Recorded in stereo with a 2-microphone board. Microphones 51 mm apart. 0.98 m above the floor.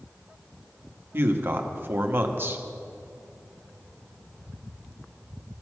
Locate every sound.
1.1 s a man speaking: 45° right (ahead or behind), 1.2 m